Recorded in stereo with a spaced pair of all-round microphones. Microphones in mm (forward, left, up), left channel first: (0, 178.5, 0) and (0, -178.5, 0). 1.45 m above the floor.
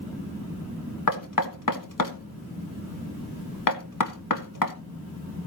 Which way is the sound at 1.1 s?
60° left (ahead or behind).